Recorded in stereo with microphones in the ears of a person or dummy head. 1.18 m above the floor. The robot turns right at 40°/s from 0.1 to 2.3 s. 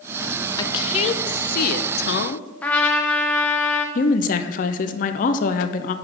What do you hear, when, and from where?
0.6 s a woman speaking: 30° left, 0.6 m; by 2.5 s 100° left, 0.6 m
2.6 s a trumpet: 5° left (ahead or behind), 0.9 m
4.0 s a woman speaking: 45° left (ahead or behind), 0.6 m